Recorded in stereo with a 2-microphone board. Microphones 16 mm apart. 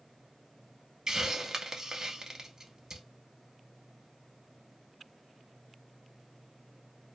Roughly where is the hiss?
Right.